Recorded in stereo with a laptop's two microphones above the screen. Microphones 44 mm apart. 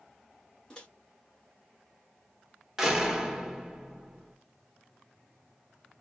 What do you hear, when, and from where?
0.7 s a microwave: 15° left (ahead or behind), 1.8 m
2.8 s a door slam: 10° right (ahead or behind), 1.4 m